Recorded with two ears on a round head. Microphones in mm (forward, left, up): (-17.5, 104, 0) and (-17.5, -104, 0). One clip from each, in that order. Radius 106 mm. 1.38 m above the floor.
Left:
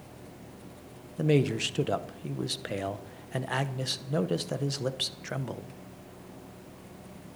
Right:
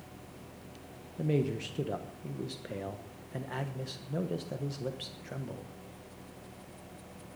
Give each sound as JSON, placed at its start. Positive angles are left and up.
{"t": 1.2, "sound": "a man speaking", "side_deg": 35, "distance_m": 0.9}